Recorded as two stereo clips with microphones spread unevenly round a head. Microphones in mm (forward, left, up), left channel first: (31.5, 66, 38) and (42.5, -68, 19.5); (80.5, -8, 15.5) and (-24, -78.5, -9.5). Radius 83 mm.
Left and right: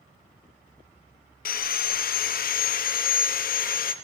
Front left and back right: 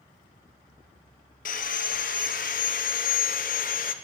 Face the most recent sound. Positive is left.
turn(degrees=80)